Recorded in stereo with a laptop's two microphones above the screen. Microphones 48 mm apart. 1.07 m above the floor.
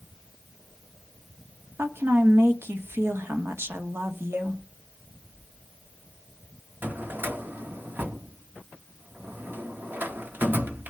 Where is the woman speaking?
55° right (ahead or behind), 1.3 m.